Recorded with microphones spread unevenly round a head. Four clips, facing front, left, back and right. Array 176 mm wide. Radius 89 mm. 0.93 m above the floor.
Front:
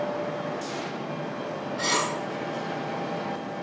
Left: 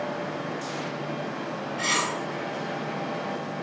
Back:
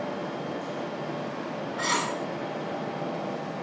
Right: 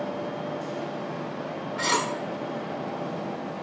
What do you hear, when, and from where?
1.8 s cutlery clinking: 65° right, 1.3 m